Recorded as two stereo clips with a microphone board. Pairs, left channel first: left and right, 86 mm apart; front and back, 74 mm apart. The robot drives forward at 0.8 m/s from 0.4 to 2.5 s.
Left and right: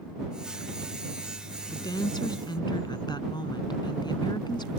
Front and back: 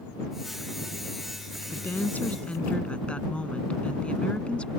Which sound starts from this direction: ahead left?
A woman speaking, at 1.7 s.